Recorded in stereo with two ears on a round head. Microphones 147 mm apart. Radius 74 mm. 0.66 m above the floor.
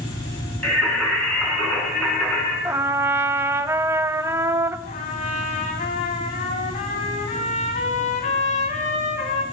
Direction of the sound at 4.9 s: 45° left (ahead or behind).